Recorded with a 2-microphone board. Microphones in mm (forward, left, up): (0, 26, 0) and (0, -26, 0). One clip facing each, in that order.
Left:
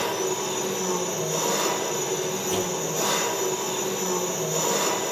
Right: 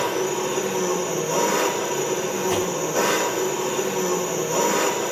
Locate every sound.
0.0 s an engine running: 70° right (ahead or behind), 6 m
2.5 s a whoosh: 70° right (ahead or behind), 1.7 m